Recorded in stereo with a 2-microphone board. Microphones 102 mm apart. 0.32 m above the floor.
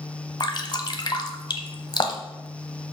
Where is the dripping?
45° left (ahead or behind), 1.0 m.